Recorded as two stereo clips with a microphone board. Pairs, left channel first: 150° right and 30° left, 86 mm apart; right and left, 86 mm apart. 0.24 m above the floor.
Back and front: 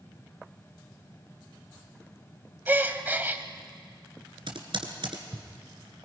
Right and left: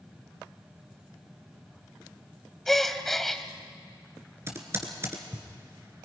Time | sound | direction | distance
2.7 | a gasp | 5° right | 1.0 m
4.5 | typing on a keyboard | 35° left | 2 m